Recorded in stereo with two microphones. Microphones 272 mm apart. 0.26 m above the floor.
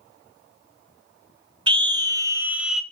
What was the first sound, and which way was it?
A scream, 20° right (ahead or behind).